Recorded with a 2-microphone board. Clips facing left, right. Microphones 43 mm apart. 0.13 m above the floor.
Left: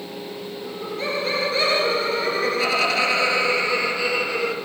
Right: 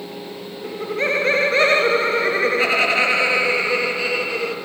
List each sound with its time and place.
0.6 s laughter: 60° right (ahead or behind), 2.5 m; by 4.5 s 10° right (ahead or behind), 3 m